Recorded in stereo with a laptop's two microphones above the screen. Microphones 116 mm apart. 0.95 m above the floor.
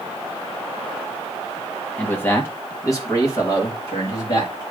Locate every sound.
2.0 s a man speaking: 15° left (ahead or behind), 0.9 m; by 4.6 s 35° left (ahead or behind), 2.5 m